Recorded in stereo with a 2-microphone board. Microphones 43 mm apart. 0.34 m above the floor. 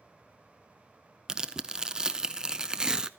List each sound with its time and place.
1.3 s tearing paper: 20° right (ahead or behind), 0.5 m